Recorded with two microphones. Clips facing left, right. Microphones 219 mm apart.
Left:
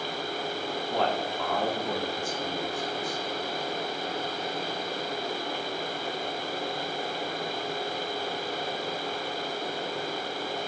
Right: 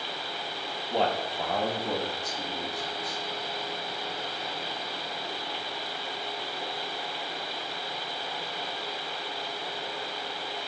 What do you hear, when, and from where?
0.9 s a man speaking: 25° right (ahead or behind), 0.9 m; by 3.2 s 40° right (ahead or behind), 1.9 m